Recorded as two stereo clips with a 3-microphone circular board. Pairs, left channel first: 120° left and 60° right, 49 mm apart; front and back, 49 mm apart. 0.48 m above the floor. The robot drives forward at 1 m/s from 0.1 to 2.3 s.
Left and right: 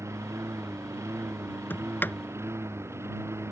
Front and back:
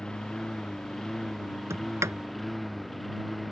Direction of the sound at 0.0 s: 75° right.